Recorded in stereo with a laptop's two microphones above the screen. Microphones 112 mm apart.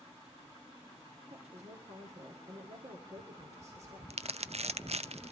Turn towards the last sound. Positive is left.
turn(degrees=-65)  # may be behind; listen again after turning